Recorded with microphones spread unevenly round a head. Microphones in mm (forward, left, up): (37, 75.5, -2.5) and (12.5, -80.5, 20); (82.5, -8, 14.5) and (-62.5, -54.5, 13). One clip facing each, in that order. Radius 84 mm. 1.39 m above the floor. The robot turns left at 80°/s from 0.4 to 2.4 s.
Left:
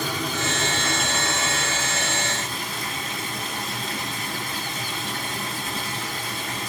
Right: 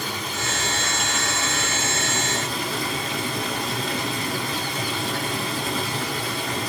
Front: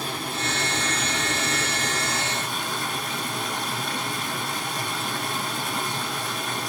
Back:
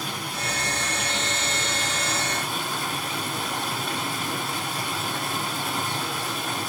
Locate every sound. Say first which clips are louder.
0.0 s running water: left 3 dB, front 2 dB; 85° left, 6.5 m; by 6.7 s 75° right, 6.5 m